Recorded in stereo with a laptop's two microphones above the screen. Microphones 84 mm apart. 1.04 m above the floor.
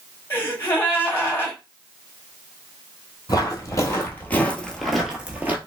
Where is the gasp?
25° left (ahead or behind), 2.5 m.